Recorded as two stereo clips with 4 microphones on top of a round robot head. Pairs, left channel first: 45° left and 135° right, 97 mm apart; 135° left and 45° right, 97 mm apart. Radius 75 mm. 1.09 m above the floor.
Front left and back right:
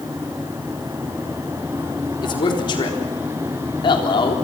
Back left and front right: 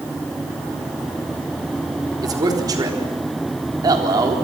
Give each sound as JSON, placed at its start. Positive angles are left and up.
{"t": 2.2, "sound": "a man speaking", "azimuth_deg": 5, "distance_m": 4.0}